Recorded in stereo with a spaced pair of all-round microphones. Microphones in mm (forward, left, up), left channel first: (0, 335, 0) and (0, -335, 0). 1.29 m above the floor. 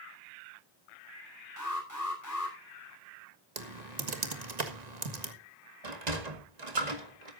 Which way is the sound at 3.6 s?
85° right.